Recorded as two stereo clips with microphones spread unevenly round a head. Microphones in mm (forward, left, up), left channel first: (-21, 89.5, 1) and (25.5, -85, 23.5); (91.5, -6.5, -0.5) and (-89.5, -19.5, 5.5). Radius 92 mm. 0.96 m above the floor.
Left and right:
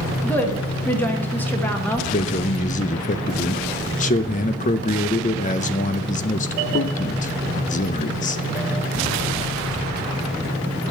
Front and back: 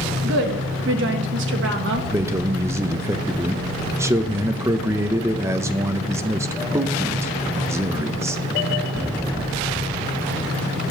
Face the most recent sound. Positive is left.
turn(degrees=110)